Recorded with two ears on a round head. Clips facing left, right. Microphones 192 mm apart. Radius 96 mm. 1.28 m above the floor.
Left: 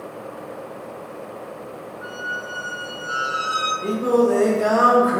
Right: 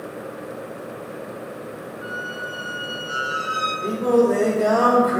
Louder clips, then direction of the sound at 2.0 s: Right 1 dB; 25° left (ahead or behind).